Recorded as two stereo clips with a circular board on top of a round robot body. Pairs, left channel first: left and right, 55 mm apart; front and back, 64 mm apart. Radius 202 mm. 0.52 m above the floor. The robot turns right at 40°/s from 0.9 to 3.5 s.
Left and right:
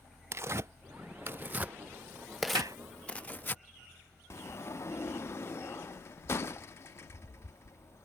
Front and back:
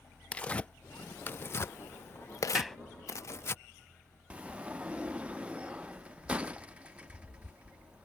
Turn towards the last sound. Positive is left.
turn(degrees=110)